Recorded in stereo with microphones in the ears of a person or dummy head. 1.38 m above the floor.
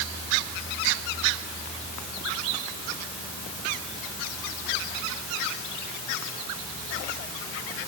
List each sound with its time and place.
Only background noise.